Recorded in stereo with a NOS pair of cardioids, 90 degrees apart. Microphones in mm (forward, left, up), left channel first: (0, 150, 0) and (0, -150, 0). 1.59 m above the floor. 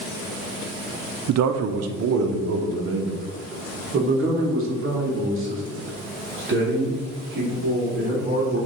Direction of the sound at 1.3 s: 65° right.